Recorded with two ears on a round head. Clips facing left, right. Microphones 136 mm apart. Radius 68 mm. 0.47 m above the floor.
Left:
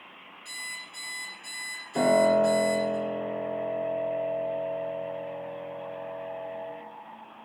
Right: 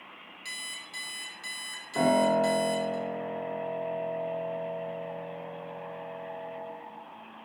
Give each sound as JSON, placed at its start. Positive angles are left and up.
{"t": 0.5, "sound": "an alarm clock", "side_deg": -75, "distance_m": 1.4}
{"t": 1.9, "sound": "a piano", "side_deg": 25, "distance_m": 0.8}